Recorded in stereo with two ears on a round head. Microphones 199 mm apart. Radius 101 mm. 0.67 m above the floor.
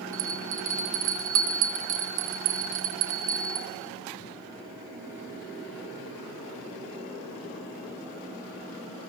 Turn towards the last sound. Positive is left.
turn(degrees=-80)